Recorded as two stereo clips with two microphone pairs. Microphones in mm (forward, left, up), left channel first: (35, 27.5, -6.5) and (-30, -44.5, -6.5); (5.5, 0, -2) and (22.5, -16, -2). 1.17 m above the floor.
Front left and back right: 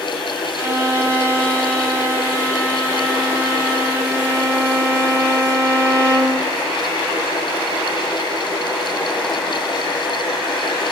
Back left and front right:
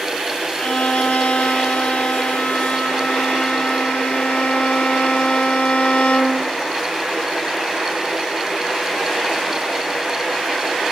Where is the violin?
165° left, 4.5 m.